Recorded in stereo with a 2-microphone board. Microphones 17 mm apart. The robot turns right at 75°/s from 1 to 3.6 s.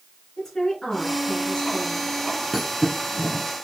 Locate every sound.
0.4 s a woman speaking: 20° left, 3 m; by 2.1 s 100° left, 3 m
2.5 s a thud: 5° right (ahead or behind), 2 m; by 3.5 s 70° right (ahead or behind), 2 m